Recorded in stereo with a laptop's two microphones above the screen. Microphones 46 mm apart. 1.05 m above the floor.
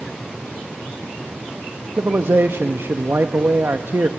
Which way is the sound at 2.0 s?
70° right (ahead or behind).